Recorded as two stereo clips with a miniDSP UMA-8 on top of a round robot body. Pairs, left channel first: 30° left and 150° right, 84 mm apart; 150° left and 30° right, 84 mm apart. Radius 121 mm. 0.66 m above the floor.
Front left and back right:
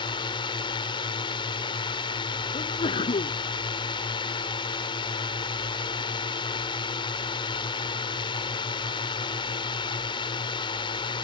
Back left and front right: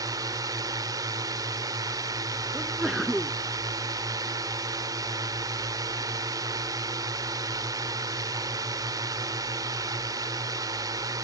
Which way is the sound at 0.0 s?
15° left.